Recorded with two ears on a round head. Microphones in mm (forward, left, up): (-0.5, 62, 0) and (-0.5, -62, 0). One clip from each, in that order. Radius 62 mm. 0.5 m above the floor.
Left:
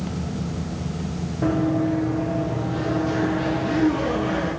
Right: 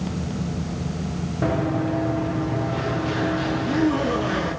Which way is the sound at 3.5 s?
80° right.